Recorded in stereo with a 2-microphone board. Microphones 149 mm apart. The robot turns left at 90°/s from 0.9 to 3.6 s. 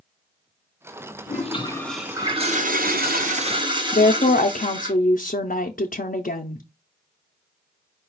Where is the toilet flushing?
60° left, 0.9 m; by 4.9 s 150° right, 0.9 m.